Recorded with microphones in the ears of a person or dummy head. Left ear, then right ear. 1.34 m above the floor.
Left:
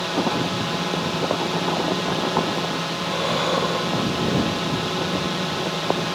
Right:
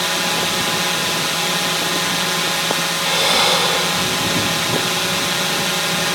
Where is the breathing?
60° right (ahead or behind).